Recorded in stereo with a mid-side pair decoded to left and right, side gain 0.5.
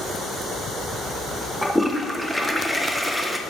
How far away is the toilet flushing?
About 1.1 m.